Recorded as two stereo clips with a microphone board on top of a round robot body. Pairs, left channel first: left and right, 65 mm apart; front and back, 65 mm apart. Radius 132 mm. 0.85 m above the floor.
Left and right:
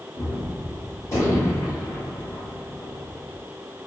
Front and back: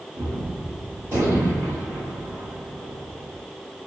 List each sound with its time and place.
0.1 s a gunshot: 130° left, 1.9 m